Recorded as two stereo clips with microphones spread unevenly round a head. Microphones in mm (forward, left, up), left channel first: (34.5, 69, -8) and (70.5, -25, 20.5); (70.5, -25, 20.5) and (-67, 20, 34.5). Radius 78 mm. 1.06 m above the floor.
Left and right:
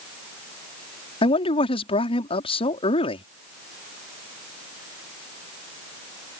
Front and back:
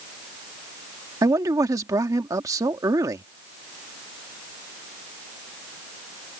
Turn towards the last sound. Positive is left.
turn(degrees=95)